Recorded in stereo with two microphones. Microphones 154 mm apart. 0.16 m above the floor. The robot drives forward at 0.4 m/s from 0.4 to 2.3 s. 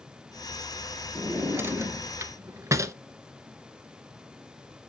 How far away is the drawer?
About 1.1 m.